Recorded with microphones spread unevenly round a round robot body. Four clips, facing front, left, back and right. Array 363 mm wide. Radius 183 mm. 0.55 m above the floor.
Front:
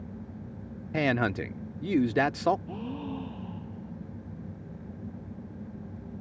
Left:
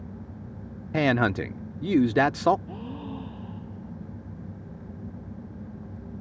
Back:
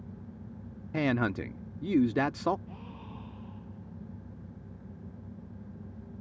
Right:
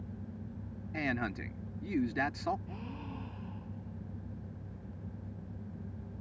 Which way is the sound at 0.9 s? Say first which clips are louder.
Left 13 dB, front 2 dB; 90° left.